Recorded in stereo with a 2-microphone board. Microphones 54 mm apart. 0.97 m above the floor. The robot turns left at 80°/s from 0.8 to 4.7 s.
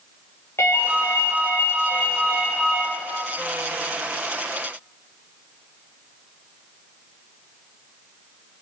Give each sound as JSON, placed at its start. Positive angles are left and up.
{"t": 0.6, "sound": "a ringtone", "azimuth_deg": 115, "distance_m": 0.5}